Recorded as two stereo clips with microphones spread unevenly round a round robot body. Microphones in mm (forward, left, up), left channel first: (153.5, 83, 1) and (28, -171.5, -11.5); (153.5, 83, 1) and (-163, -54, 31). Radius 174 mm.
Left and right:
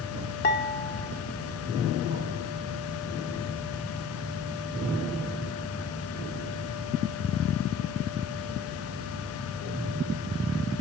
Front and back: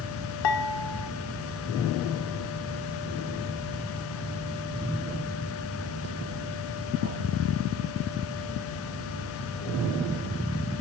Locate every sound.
0.4 s dishes clattering: 5° left, 1.6 m